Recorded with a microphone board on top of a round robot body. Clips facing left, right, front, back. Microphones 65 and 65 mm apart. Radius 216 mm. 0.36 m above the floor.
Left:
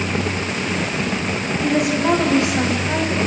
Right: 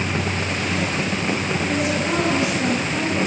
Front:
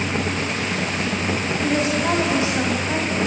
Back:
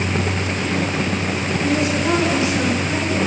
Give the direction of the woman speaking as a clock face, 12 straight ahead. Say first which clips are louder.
Left 7 dB, back 1 dB; 10 o'clock.